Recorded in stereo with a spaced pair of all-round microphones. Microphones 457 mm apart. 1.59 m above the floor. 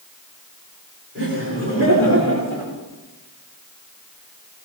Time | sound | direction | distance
1.1 | laughter | 25° right (ahead or behind) | 5.5 m